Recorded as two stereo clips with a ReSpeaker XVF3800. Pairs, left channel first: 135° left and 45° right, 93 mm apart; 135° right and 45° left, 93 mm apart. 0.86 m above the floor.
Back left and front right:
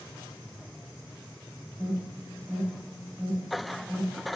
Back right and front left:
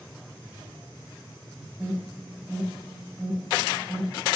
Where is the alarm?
30° right, 1.1 m.